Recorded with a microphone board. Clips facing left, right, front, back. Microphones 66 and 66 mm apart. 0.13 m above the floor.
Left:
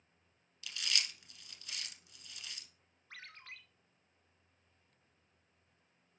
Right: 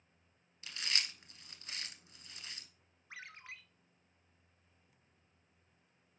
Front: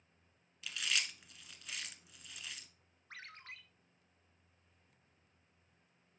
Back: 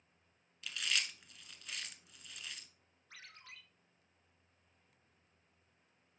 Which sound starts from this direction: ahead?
A ringtone, at 3.1 s.